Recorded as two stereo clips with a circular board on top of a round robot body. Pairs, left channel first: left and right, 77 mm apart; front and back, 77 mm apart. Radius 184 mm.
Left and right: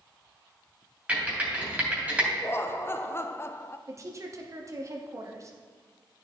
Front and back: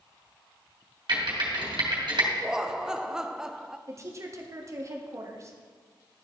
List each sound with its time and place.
1.1 s typing on a keyboard: 160° right, 2.5 m
2.4 s laughter: 105° left, 0.5 m
3.9 s a woman speaking: 135° right, 1.4 m